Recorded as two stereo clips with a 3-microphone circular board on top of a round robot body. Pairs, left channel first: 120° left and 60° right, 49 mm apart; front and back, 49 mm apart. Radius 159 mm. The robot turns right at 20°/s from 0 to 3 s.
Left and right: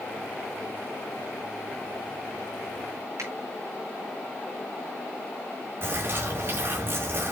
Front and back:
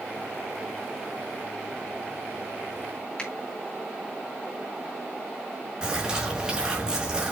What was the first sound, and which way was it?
A finger snap, 70° right.